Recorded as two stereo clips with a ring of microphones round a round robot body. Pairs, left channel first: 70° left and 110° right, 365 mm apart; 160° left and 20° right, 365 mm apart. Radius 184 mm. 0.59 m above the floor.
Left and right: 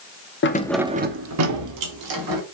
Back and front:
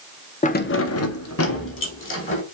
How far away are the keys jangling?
About 0.7 m.